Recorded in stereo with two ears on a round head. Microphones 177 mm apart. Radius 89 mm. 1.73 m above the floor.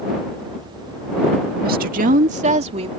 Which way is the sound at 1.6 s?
50° right (ahead or behind).